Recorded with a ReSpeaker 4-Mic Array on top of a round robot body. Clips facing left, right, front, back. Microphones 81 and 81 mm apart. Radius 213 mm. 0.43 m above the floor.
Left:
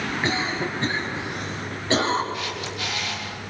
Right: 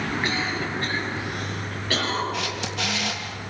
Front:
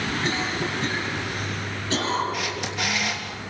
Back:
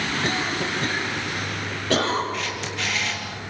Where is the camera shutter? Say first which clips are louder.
Right 2 dB, even; 80° right, 3 m.